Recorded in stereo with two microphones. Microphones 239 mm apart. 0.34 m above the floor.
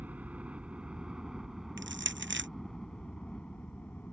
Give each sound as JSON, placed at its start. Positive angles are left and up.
{"t": 0.0, "sound": "a helicopter", "side_deg": -5}
{"t": 1.8, "sound": "crushing", "side_deg": -55}